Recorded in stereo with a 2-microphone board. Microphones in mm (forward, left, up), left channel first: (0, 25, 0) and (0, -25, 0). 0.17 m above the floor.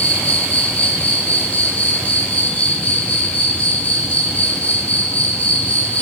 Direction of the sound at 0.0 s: 25° left (ahead or behind).